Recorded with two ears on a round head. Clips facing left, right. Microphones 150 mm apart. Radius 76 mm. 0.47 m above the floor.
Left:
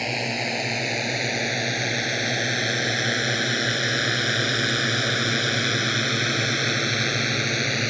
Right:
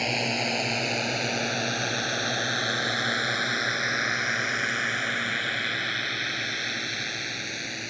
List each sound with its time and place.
0.0 s a drone: 5° left (ahead or behind); by 7.9 s 75° left (ahead or behind)